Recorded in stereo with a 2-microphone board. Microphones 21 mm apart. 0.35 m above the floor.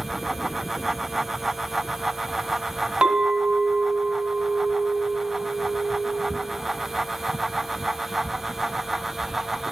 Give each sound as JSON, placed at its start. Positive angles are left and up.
{"t": 3.0, "sound": "a clink", "side_deg": -60, "distance_m": 1.8}